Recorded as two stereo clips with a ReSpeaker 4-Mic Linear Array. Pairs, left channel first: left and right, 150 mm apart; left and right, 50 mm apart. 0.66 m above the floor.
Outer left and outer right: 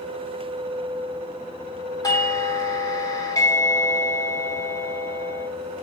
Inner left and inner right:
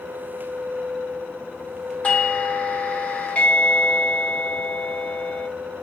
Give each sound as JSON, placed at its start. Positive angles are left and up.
{"t": 2.0, "sound": "a doorbell", "side_deg": 25, "distance_m": 1.4}